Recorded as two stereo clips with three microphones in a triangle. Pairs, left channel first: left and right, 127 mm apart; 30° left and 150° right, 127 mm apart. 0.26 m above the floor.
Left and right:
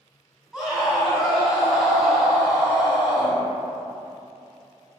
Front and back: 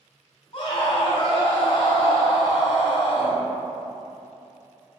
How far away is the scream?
About 1.5 m.